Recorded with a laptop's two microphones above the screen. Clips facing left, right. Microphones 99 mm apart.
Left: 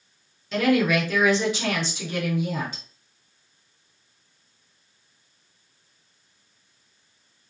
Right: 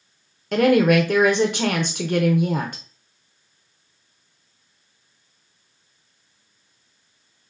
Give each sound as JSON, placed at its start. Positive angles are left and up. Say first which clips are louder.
{"t": 0.5, "sound": "a woman speaking", "louder": "right 5 dB", "side_deg": -55, "distance_m": 0.7}